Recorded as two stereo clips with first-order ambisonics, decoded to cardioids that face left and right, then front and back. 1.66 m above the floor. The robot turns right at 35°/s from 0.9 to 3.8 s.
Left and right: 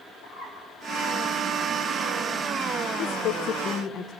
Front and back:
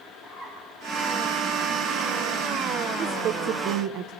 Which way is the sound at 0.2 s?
105° left.